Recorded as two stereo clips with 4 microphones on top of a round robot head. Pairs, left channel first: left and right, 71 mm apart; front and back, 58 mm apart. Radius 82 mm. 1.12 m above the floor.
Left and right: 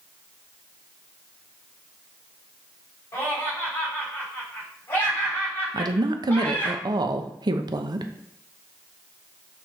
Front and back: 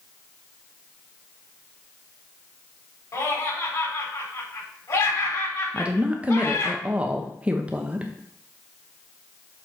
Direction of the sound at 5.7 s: 105° right.